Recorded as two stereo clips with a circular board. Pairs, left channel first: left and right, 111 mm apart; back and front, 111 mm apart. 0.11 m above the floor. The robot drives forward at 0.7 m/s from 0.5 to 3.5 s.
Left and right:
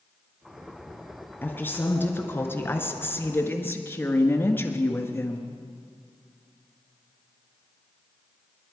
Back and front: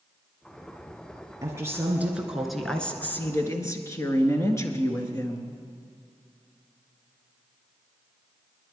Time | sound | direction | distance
1.4 | a woman speaking | 30° left | 1.6 m